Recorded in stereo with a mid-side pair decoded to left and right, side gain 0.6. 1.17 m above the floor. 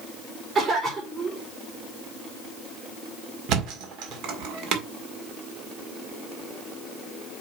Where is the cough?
40° right, 4 m.